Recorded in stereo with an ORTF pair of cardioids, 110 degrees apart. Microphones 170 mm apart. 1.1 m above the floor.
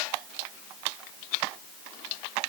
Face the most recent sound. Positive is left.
No sound to turn to.